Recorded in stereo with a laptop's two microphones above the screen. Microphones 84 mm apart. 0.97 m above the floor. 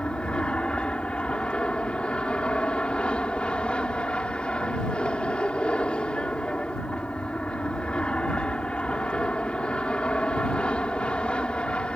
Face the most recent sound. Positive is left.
turn(degrees=10)  # may be behind; listen again after turning